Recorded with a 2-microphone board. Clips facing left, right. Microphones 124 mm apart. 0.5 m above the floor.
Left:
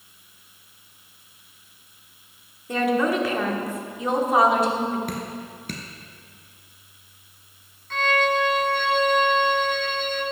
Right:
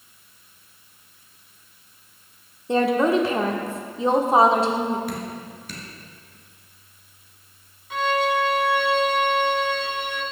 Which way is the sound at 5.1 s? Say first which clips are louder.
Even; 55° left (ahead or behind).